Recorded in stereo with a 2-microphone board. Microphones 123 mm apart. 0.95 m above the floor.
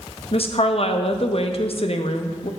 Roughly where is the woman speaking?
Left.